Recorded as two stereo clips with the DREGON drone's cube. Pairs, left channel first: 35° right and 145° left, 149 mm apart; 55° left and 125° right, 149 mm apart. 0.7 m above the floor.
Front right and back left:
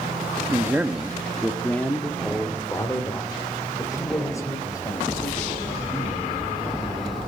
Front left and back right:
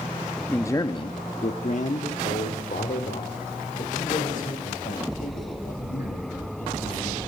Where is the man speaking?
115° left, 0.7 m; by 7.2 s 30° left, 5 m.